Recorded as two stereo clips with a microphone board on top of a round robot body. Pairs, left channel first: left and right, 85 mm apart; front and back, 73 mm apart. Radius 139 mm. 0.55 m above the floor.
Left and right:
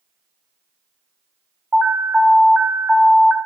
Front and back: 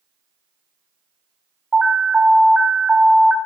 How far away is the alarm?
About 0.8 m.